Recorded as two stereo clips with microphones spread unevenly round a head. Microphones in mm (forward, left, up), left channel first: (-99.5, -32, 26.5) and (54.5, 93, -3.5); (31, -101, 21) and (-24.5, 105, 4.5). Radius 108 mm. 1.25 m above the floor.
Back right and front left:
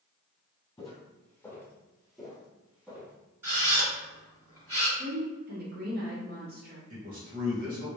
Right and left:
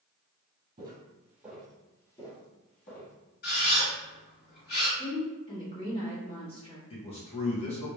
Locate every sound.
0.8 s footsteps: 165° left, 1.5 m; by 3.1 s 50° right, 1.7 m
3.4 s a camera shutter: 45° right, 2.0 m
5.0 s a woman speaking: 10° right, 1.7 m
6.9 s a man speaking: 10° right, 1.3 m